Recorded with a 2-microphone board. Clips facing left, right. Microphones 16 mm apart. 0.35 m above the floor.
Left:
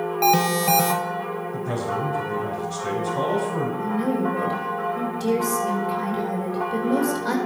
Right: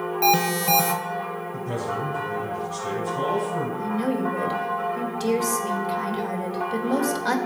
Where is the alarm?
20° left (ahead or behind), 1.1 m.